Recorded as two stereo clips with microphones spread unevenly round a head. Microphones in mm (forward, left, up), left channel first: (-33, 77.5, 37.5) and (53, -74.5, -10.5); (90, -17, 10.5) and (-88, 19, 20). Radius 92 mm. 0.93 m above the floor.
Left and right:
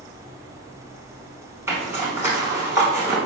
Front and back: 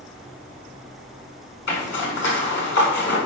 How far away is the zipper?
About 6.5 m.